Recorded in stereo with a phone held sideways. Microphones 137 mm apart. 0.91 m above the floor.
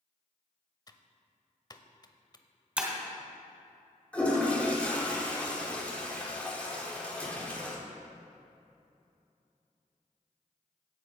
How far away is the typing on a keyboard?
About 0.7 m.